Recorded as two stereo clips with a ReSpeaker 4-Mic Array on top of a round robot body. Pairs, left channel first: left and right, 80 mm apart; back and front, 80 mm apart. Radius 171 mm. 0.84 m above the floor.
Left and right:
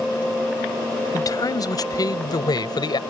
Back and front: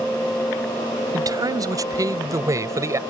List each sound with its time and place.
1.1 s a man speaking: 45° left; by 3.0 s 55° left